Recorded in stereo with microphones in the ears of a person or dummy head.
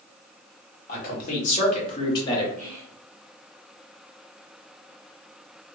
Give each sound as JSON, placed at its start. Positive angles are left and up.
{"t": 0.9, "sound": "a man speaking", "side_deg": 50, "distance_m": 1.6}
{"t": 2.6, "sound": "whispering", "side_deg": -35, "distance_m": 1.1}